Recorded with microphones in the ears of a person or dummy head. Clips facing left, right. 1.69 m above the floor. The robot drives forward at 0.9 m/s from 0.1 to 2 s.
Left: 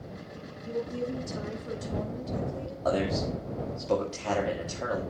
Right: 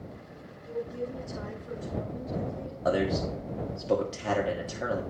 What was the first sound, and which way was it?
A woman speaking, 50° left (ahead or behind).